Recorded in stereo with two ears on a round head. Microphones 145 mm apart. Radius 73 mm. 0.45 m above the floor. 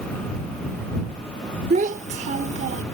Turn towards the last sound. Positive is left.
turn(degrees=-45)  # may be behind; listen again after turning